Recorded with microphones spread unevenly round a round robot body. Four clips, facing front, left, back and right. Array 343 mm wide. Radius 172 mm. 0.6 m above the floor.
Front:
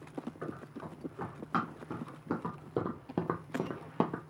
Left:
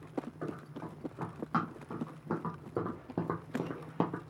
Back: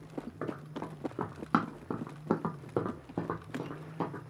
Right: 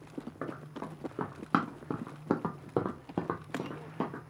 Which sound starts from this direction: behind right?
Running footsteps, at 0.4 s.